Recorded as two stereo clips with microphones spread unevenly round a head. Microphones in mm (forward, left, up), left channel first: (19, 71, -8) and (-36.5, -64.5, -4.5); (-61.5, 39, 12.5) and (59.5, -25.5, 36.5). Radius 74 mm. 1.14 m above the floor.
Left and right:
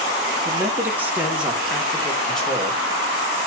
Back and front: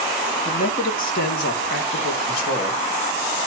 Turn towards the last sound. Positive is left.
turn(degrees=150)